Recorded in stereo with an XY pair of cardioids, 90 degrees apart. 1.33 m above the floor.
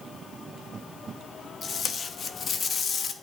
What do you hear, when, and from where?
1.6 s tape being pulled: 50° left, 0.8 m